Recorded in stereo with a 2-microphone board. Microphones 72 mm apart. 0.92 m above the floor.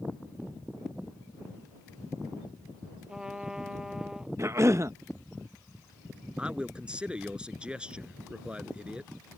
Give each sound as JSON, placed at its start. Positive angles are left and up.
{"t": 3.1, "sound": "a trumpet", "side_deg": -10}
{"t": 4.4, "sound": "a cough", "side_deg": -40}
{"t": 6.4, "sound": "a man speaking", "side_deg": -15}